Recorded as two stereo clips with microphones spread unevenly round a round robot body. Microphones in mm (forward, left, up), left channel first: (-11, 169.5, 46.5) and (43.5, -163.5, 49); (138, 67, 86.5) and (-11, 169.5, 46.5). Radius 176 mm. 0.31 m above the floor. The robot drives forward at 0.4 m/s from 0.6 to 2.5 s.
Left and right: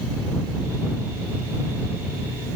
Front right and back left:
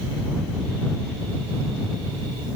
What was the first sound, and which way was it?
Only background noise.